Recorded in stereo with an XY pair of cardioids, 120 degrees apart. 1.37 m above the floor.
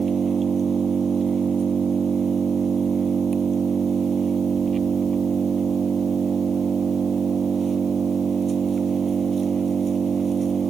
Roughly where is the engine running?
Ahead right.